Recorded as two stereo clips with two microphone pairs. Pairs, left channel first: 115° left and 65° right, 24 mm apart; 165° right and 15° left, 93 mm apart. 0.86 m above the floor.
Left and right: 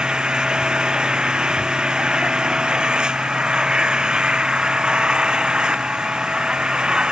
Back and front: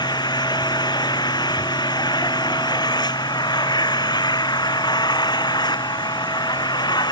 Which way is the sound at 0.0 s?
125° right.